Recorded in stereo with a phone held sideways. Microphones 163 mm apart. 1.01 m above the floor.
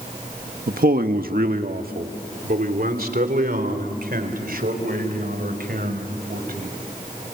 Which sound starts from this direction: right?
A man speaking, at 0.7 s.